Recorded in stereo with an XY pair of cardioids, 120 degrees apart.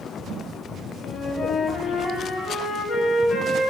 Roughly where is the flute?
Ahead left.